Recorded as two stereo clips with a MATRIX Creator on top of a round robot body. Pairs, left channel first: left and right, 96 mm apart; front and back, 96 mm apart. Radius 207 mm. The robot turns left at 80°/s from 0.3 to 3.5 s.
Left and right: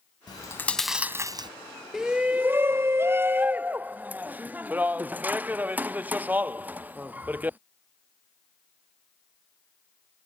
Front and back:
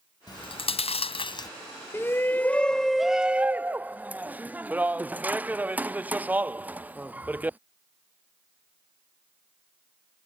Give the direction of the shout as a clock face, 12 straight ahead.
12 o'clock.